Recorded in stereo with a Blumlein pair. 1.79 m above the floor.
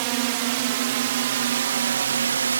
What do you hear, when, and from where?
0.0 s a drone: 45° right; by 2.6 s 70° right